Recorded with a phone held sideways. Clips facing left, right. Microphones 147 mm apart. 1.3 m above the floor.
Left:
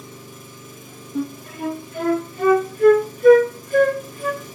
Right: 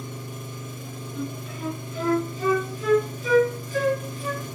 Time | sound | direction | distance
0.0 | an engine running | 65° right (ahead or behind) | 2.5 m
1.1 | a flute | 60° left (ahead or behind) | 1.2 m